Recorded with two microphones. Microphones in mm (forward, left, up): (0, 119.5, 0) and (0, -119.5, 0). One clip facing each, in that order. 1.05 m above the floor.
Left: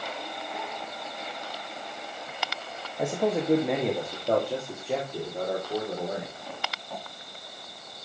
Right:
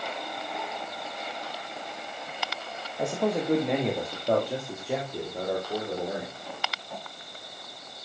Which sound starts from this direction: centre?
A man speaking, at 3.0 s.